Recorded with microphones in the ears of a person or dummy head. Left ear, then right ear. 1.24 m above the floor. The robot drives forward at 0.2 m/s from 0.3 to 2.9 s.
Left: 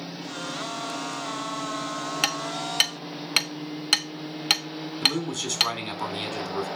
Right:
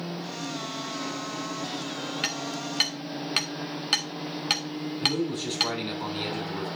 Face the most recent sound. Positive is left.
turn(degrees=65)  # may be behind; listen again after turning